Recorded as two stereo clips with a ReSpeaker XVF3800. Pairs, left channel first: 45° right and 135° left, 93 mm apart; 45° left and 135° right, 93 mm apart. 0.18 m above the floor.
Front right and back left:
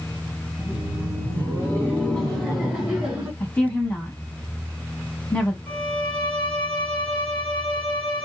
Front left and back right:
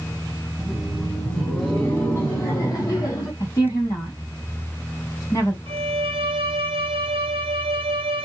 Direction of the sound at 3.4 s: 20° left.